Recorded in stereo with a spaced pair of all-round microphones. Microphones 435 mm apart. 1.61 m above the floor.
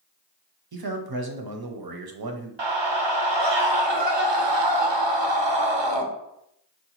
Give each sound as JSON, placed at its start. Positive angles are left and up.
{"t": 0.7, "sound": "a man speaking", "side_deg": -55, "distance_m": 0.6}
{"t": 2.6, "sound": "a scream", "side_deg": -75, "distance_m": 0.7}